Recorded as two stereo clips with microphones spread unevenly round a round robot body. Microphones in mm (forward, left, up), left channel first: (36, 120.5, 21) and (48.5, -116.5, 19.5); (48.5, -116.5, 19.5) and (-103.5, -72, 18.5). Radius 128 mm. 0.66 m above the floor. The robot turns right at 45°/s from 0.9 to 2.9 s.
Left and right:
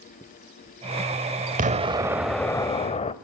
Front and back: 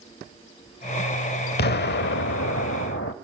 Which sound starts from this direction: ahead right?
An explosion, at 1.6 s.